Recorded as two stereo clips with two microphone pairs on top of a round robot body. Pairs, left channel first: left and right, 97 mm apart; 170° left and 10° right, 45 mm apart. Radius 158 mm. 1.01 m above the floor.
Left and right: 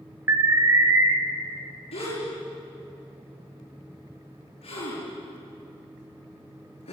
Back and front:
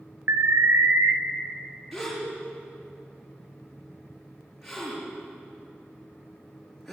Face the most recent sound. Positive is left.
turn(degrees=80)